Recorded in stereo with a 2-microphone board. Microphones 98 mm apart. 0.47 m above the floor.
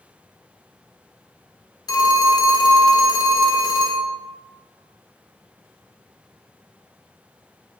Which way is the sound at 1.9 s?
40° left (ahead or behind).